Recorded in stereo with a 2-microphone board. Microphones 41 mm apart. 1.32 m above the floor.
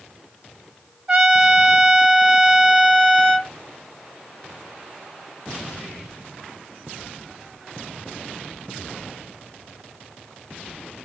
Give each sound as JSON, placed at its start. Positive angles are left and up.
{"t": 1.1, "sound": "a trumpet", "side_deg": -20, "distance_m": 2.5}